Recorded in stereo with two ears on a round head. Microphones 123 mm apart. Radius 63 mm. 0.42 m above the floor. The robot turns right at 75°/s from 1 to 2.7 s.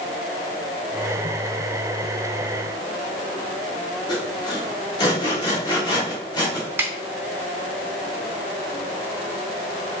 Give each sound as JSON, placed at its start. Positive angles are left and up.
{"t": 4.1, "sound": "sawing", "side_deg": 30, "distance_m": 1.3}
{"t": 6.8, "sound": "a snare drum", "side_deg": -15, "distance_m": 0.6}